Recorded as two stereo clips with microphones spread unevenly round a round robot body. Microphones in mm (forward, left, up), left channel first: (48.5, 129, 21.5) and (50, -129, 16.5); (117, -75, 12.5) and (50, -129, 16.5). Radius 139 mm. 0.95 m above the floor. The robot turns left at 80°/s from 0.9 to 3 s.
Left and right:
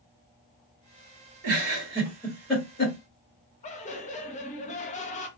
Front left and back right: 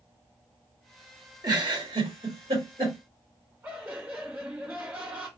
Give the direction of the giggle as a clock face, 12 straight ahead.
3 o'clock.